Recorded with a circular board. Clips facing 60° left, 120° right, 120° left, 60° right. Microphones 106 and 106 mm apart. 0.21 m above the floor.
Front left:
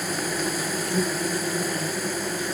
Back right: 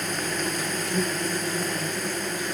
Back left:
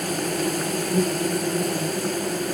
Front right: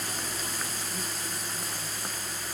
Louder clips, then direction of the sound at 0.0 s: Front left 1 dB, back left 12 dB; 140° left.